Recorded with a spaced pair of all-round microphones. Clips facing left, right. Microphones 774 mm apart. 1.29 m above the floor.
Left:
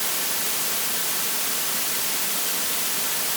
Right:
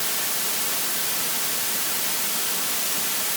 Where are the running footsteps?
No running footsteps in this recording.